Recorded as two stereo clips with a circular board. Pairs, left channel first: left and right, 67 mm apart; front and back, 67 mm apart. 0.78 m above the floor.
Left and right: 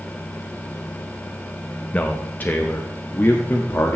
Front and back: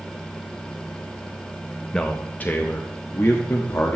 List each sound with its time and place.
1.9 s a man speaking: 60° left, 0.7 m; by 4.0 s 40° left, 1.5 m